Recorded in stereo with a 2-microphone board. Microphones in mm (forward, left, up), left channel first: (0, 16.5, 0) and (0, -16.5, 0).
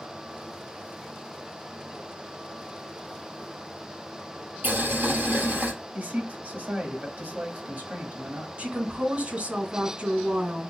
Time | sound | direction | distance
4.6 | boiling | 90° right | 1.9 m
5.9 | a man speaking | 55° right (ahead or behind) | 1.9 m
8.6 | a woman speaking | 45° right (ahead or behind) | 2.5 m